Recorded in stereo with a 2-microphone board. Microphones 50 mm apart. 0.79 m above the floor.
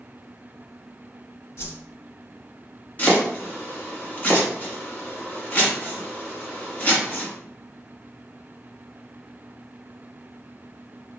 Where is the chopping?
35° left (ahead or behind), 1.3 m.